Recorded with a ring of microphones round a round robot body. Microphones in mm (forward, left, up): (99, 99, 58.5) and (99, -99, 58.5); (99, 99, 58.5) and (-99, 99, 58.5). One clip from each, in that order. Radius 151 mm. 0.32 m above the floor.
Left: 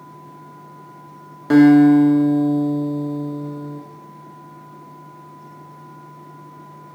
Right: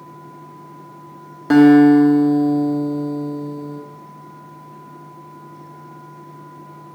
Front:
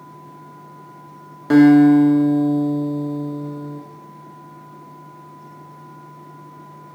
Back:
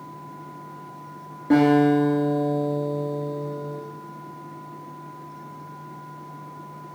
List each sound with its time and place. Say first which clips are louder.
1.5 s a guitar: right 1 dB, front 6 dB; 10° right, 0.8 m